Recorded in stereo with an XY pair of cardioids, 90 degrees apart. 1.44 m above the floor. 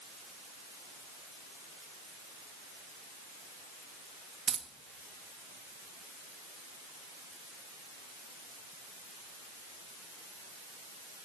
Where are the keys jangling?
60° right, 1.5 m.